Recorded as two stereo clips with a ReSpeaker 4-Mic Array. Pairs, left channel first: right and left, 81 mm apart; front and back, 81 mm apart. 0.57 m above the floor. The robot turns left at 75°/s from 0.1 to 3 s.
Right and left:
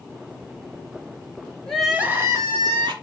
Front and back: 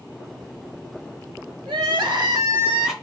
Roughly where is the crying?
Behind.